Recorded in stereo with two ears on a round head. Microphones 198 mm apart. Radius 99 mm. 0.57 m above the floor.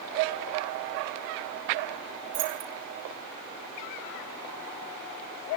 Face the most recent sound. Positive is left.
turn(degrees=-60)  # may be behind; listen again after turning